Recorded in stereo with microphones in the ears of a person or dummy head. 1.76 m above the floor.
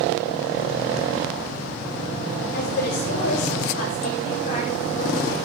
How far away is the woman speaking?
About 5 m.